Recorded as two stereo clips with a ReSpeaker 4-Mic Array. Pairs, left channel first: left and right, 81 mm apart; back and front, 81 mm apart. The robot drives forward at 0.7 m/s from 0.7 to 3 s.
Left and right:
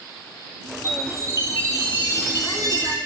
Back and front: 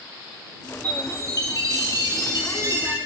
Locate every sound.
0.8 s a chime: 35° right, 4.5 m; by 3.0 s 50° right, 3.5 m